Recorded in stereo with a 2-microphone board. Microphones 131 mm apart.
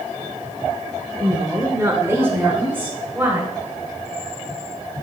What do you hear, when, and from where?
1.2 s a woman speaking: 25° right (ahead or behind), 1.0 m; by 3.5 s 15° right (ahead or behind), 1.8 m